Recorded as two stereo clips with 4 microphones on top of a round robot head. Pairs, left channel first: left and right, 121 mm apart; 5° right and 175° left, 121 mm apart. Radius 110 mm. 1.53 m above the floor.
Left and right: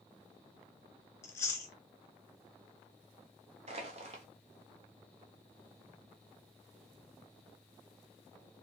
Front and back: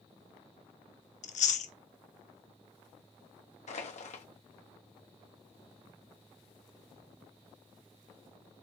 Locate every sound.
1.2 s chewing: 15° left, 0.7 m
3.7 s crushing: 45° right, 0.8 m